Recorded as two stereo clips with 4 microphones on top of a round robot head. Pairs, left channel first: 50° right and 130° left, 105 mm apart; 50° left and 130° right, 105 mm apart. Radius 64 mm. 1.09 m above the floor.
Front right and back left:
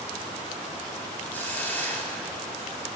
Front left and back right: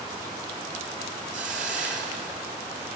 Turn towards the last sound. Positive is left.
turn(degrees=-125)